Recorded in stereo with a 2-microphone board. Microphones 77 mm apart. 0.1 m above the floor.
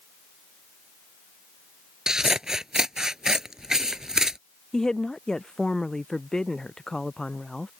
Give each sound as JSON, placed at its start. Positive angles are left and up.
{"t": 2.1, "sound": "scissors", "side_deg": -5}
{"t": 4.7, "sound": "a woman speaking", "side_deg": 10}